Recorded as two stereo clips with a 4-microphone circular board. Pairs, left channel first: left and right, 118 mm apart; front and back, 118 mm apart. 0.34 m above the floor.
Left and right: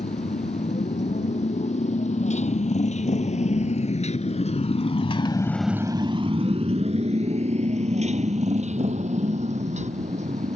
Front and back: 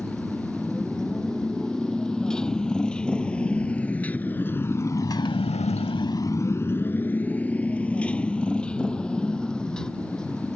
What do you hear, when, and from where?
0.0 s a motorcycle: 90° left; by 10.6 s 85° right